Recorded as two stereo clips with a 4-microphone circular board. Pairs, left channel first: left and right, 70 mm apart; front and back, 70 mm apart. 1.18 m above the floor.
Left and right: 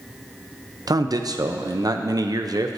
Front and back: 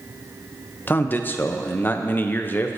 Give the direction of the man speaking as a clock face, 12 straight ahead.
2 o'clock.